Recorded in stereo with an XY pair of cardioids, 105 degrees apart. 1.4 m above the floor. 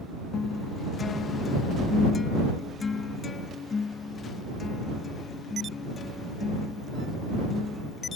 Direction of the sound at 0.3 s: 40° left.